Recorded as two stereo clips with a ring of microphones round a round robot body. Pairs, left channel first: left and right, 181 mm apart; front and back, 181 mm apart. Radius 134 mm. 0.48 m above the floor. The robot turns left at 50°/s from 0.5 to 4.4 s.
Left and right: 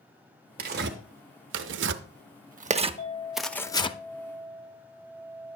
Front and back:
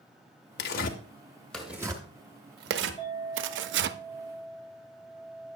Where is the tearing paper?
40° right, 0.5 m; by 4.0 s 150° left, 0.5 m.